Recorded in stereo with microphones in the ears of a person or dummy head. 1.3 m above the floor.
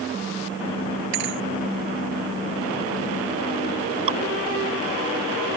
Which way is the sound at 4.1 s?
35° right (ahead or behind).